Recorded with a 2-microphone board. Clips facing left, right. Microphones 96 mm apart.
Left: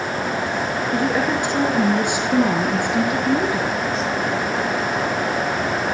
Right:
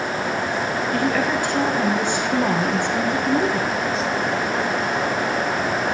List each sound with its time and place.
0.9 s a woman speaking: 20° left (ahead or behind), 4.5 m; by 3.7 s 5° left (ahead or behind), 4 m